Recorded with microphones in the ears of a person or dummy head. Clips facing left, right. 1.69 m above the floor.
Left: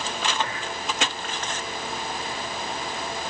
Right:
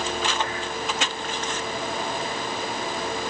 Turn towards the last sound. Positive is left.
No sound to turn to.